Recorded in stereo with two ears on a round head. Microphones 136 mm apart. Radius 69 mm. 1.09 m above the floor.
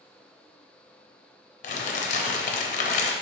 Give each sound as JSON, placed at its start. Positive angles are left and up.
{"t": 1.6, "sound": "crumpling", "side_deg": 55, "distance_m": 0.5}